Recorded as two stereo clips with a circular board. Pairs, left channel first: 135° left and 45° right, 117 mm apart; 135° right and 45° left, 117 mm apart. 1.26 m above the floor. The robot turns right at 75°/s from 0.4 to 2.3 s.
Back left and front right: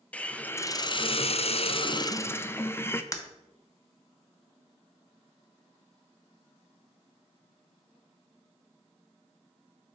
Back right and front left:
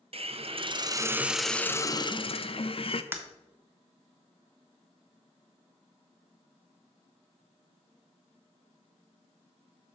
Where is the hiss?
60° left, 0.5 m; by 3.0 s 160° right, 0.5 m.